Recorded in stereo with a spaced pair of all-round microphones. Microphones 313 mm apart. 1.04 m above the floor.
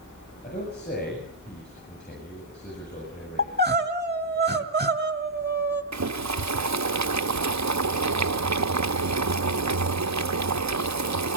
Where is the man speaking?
30° left (ahead or behind), 8 m.